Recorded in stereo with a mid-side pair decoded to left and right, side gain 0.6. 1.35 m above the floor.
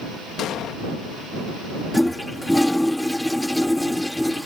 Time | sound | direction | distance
0.4 | an explosion | 55° left | ?
1.9 | a toilet flushing | 5° left | ?